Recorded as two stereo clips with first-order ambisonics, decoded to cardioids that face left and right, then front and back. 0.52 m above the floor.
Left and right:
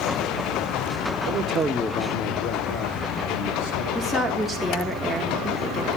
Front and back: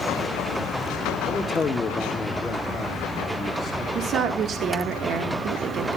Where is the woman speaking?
170° left, 1.0 m.